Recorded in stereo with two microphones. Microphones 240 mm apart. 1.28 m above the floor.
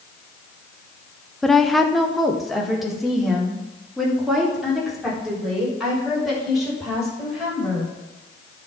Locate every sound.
1.4 s a woman speaking: centre (ahead or behind), 0.8 m